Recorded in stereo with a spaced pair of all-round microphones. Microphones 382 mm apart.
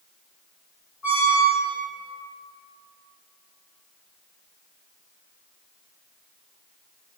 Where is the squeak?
45° left (ahead or behind), 1.2 m.